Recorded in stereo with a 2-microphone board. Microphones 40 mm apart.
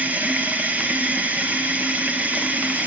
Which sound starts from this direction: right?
Running water, at 0.0 s.